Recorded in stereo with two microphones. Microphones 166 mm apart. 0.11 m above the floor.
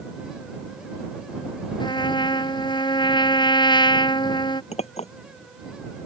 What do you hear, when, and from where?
1.8 s a trumpet: 30° left (ahead or behind)
4.7 s a clink: 40° left (ahead or behind)